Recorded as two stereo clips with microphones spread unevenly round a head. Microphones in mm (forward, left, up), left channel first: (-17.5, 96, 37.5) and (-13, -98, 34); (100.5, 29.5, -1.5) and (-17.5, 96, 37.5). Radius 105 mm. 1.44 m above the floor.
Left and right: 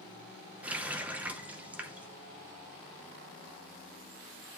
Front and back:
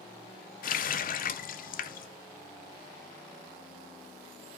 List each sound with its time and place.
0.6 s a running tap: 5° right, 0.6 m